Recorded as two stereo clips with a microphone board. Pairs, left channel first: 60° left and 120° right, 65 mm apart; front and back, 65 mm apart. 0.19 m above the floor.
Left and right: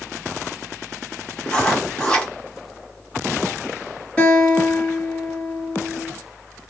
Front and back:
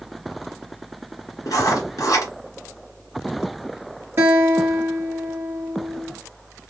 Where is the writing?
10° right, 1.8 m.